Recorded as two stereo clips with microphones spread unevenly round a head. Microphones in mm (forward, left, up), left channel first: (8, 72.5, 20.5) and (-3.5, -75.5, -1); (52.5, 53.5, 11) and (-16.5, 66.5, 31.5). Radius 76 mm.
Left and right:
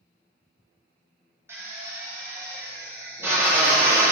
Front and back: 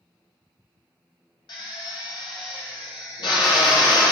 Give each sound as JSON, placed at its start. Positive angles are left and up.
{"t": 1.5, "sound": "a drill", "azimuth_deg": -20, "distance_m": 0.8}